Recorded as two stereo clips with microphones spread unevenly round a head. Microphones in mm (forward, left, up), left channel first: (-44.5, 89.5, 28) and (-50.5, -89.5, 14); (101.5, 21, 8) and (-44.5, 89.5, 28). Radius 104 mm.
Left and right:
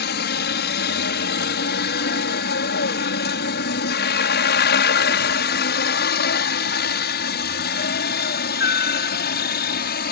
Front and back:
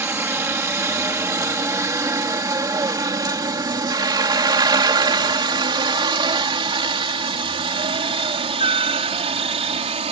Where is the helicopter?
80° left; by 10.1 s 110° left.